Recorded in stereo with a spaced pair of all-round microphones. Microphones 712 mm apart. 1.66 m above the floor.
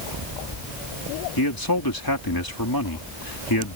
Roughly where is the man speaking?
Left.